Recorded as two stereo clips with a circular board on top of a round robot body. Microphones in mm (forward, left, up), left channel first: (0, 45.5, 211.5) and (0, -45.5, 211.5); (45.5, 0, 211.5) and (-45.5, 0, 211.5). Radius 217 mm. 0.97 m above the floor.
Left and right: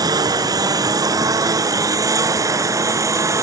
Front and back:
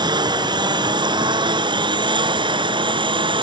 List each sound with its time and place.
0.0 s a lawn mower: 140° right; by 3.4 s 150° right